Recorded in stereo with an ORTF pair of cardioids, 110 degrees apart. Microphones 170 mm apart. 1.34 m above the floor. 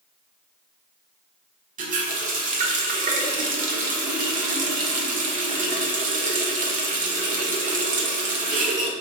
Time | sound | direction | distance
1.8 | a running tap | 50° right | 0.9 m